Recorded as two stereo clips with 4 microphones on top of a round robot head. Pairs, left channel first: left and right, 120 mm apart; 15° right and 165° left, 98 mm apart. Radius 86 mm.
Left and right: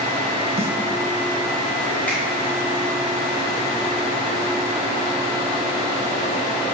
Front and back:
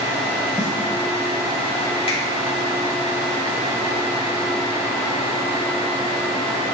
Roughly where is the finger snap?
Ahead.